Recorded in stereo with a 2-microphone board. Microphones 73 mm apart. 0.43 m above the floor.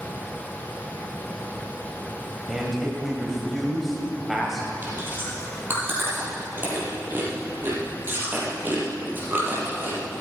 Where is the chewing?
30° right (ahead or behind), 4 m.